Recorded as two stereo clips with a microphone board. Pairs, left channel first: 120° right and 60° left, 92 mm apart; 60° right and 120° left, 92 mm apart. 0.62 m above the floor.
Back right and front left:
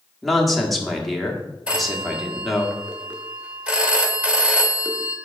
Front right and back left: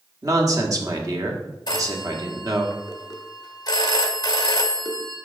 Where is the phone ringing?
15° right, 1.1 m.